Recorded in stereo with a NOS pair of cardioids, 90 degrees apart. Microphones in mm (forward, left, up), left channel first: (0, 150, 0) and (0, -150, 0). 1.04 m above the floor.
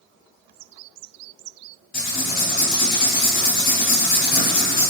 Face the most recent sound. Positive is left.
turn(degrees=30)